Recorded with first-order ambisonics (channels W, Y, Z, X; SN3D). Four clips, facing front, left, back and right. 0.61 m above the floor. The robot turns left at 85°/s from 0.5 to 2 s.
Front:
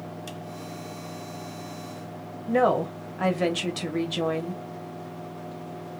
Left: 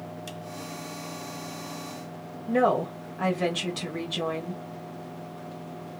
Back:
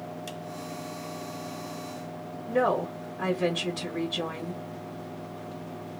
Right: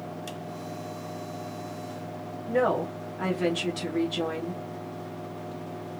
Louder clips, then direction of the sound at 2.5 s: Left 2 dB, front 3 dB; 15° left.